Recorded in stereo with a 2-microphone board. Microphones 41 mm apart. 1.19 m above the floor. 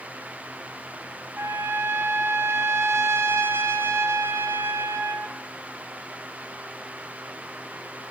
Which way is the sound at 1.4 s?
65° right (ahead or behind).